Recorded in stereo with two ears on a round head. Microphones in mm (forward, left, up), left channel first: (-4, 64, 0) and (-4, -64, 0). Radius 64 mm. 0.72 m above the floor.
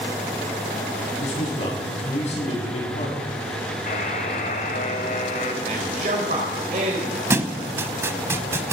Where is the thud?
20° right (ahead or behind), 0.6 m.